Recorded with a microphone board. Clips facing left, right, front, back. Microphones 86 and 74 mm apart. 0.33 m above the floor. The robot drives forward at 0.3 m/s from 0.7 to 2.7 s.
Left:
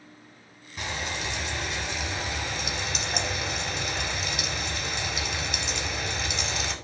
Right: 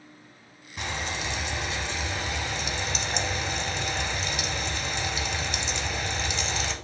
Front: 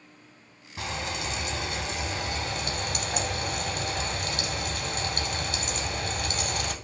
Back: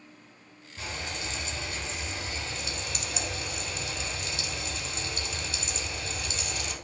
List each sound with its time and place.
0.8 s frying: straight ahead, 1.1 m